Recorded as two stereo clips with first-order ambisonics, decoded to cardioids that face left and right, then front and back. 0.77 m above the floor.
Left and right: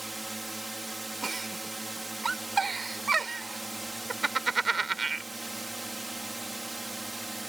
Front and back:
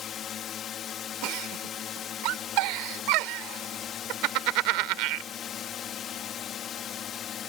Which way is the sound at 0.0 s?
15° right.